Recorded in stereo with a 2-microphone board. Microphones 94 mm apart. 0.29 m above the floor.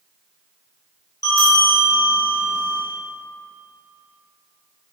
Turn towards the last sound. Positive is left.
turn(degrees=40)  # may be behind; listen again after turning